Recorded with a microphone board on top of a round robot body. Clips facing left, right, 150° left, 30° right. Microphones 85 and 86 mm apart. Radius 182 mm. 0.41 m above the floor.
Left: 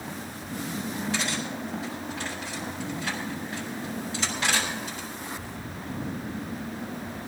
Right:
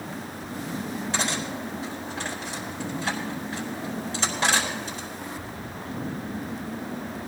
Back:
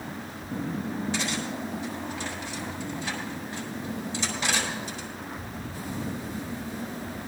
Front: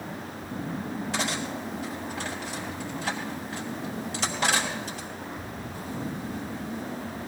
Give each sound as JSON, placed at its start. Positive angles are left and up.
{"t": 1.1, "sound": "cutlery clinking", "azimuth_deg": -35, "distance_m": 4.0}